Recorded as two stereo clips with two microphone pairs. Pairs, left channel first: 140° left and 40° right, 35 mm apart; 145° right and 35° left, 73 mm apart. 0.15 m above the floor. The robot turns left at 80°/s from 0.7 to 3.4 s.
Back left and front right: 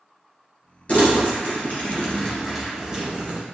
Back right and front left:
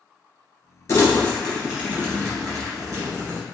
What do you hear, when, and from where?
0.9 s crumpling: 175° right, 1.9 m; by 3.4 s 15° right, 1.9 m